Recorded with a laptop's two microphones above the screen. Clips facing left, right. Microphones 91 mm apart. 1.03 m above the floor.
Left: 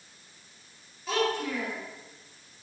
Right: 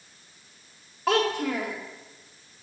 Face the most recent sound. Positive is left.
turn(degrees=-65)  # may be behind; listen again after turning